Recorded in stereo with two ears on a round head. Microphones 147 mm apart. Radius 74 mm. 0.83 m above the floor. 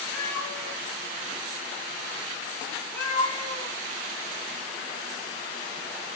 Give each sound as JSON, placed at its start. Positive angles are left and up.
{"t": 0.1, "sound": "a cat meowing", "side_deg": 10, "distance_m": 3.5}